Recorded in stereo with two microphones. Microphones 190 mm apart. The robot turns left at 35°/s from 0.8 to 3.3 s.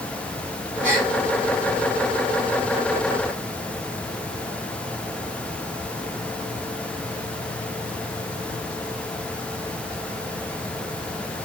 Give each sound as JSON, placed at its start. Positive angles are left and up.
{"t": 0.8, "sound": "a gasp", "side_deg": -40, "distance_m": 2.5}